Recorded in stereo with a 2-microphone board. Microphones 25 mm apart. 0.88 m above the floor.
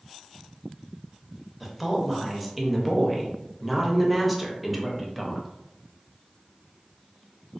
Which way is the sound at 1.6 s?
Centre (ahead or behind).